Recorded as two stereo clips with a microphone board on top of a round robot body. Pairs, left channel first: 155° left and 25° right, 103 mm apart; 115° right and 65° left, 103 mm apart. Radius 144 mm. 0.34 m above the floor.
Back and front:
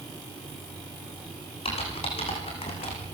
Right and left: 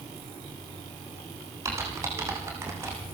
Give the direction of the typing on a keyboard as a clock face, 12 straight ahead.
8 o'clock.